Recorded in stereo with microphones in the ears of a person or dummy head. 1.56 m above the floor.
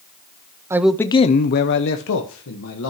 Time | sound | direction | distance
0.7 | a man speaking | 15° right (ahead or behind) | 0.6 m